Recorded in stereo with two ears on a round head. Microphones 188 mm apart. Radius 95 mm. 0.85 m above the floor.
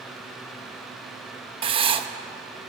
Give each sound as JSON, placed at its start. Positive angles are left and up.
{"t": 1.6, "sound": "writing", "side_deg": -25, "distance_m": 0.7}